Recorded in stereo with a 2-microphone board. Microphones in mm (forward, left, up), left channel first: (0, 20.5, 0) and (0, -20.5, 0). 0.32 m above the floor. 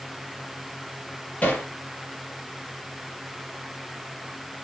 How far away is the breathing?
I don't hear breathing.